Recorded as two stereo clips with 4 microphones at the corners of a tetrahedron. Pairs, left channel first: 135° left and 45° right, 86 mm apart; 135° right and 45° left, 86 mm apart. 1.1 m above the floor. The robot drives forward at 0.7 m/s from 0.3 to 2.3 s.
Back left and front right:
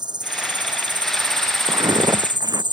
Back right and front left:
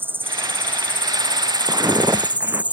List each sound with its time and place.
0.0 s an insect: 20° right; by 2.7 s 25° right
1.7 s footsteps: 10° right